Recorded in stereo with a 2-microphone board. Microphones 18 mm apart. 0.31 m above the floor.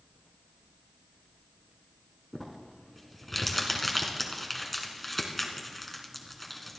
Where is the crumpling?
5° left (ahead or behind), 2.5 m.